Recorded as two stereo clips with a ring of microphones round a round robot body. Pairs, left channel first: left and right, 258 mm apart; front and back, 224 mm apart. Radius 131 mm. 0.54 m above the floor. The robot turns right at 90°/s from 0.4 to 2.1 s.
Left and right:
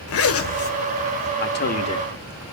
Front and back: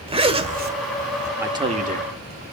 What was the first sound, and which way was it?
A zipper, 115° left.